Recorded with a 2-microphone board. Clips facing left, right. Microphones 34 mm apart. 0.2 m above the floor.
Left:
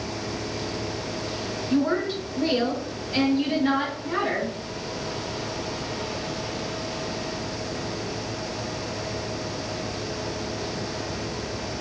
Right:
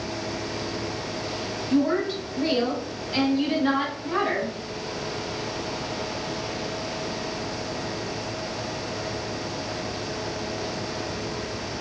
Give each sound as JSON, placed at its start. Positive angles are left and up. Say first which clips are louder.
{"t": 1.7, "sound": "a woman speaking", "louder": "right 1 dB", "side_deg": 0, "distance_m": 1.2}